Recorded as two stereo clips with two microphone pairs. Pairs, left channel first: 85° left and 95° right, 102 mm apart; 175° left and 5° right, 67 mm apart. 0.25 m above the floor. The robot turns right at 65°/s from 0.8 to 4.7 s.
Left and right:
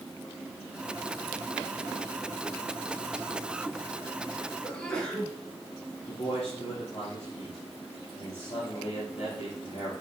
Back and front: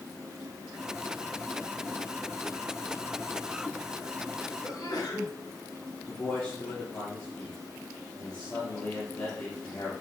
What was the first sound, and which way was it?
A sneeze, 160° left.